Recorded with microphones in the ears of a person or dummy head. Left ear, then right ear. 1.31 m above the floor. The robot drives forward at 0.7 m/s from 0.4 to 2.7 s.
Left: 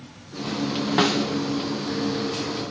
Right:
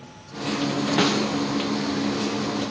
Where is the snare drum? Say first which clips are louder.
Left 1 dB; 5° left (ahead or behind), 0.5 m.